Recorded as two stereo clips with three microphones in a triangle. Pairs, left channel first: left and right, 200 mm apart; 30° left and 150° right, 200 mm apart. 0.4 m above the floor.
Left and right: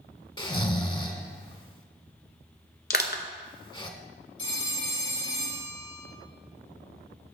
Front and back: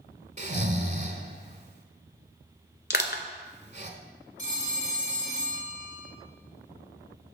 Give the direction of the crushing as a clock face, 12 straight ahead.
10 o'clock.